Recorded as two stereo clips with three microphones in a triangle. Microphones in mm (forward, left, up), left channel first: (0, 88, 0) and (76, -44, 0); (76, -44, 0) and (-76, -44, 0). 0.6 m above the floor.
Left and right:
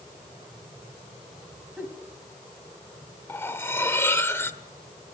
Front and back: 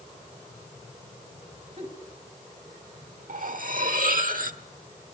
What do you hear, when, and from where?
1.8 s a giggle: 140° right, 2.5 m
3.3 s cutlery clinking: 170° right, 1.0 m